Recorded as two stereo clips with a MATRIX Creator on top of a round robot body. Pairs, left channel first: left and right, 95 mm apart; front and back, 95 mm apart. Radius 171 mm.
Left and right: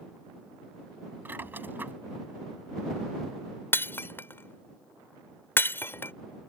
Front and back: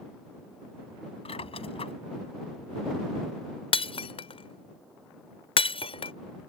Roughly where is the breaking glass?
Ahead.